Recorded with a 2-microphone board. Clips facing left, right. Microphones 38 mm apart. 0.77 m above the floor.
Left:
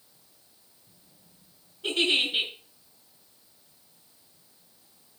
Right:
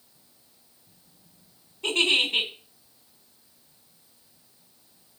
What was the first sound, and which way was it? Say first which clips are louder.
A giggle: right 2 dB; 85° right.